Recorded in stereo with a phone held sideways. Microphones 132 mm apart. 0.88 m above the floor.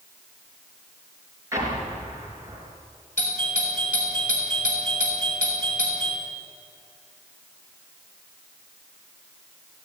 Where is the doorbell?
75° left (ahead or behind), 5.5 m.